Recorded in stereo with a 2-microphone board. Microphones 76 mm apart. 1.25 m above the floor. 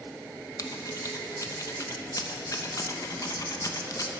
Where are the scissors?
50° left (ahead or behind), 0.8 m.